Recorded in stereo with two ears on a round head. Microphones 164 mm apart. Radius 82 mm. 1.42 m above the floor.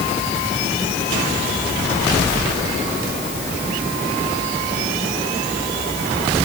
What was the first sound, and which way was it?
Only background noise.